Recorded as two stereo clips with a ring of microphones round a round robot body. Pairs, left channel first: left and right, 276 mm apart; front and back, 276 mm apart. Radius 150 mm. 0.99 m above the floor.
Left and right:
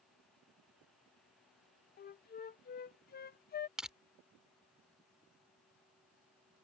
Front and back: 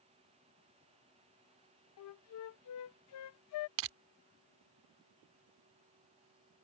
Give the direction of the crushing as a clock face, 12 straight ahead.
6 o'clock.